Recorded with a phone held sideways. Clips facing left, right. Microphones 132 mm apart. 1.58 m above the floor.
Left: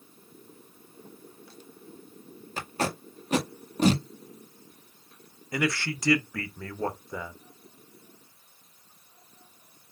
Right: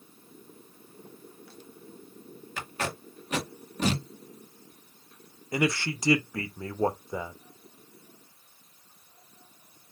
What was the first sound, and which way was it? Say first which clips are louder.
Tape being pulled: left 4 dB; 35° left (ahead or behind).